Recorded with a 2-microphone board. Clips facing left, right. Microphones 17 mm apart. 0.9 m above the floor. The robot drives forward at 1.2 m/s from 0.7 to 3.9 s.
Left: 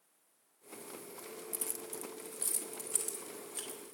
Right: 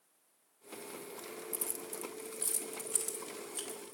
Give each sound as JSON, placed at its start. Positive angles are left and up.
{"t": 1.5, "sound": "keys jangling", "side_deg": 20, "distance_m": 0.8}